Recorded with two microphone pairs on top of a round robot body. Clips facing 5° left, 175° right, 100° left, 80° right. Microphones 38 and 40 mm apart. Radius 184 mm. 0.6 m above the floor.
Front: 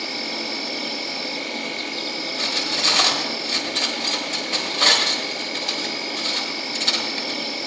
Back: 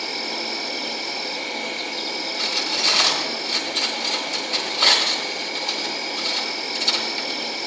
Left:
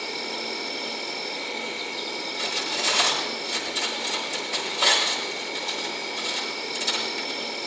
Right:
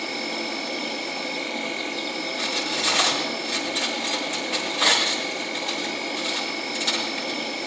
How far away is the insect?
About 3 m.